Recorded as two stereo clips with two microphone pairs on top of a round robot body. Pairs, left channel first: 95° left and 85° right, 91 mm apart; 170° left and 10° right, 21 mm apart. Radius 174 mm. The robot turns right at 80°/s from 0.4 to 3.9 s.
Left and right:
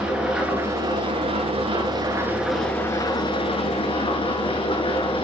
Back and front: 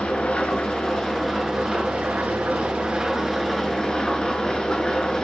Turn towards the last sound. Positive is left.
turn(degrees=110)